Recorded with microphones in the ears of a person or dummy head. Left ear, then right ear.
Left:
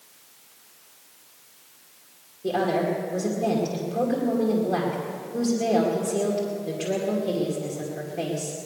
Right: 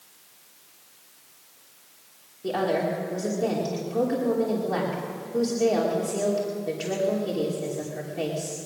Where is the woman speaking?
25° right (ahead or behind), 2.5 m.